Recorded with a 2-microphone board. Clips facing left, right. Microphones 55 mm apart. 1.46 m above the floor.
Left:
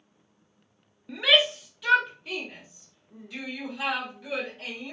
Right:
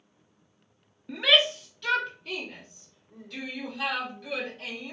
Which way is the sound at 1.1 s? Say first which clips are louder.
Left 1 dB; centre (ahead or behind).